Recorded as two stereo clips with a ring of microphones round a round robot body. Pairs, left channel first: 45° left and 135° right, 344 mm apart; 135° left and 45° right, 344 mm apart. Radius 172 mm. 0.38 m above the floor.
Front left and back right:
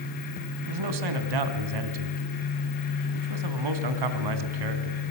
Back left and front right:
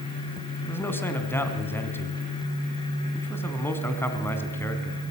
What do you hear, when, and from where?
0.6 s a man speaking: 140° right, 2.5 m